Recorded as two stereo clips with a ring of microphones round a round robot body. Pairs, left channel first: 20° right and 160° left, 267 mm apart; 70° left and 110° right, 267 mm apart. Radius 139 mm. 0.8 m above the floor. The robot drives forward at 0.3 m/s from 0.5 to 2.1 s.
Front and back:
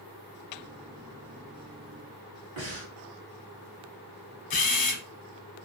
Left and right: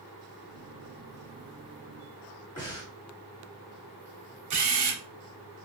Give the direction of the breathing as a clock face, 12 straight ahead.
7 o'clock.